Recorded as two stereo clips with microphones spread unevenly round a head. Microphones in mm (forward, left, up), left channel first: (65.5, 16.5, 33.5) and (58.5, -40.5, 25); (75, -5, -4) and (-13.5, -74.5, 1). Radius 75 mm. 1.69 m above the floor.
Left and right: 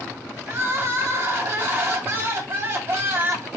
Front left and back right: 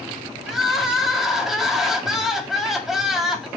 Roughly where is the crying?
Ahead right.